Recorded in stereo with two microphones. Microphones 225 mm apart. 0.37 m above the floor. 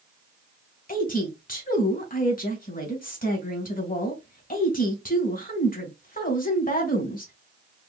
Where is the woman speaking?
40° left (ahead or behind), 1.5 m.